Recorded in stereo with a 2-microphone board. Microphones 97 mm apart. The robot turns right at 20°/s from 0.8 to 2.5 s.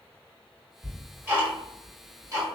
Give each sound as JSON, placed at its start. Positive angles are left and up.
{"t": 0.8, "sound": "ticking", "side_deg": -10, "distance_m": 1.6}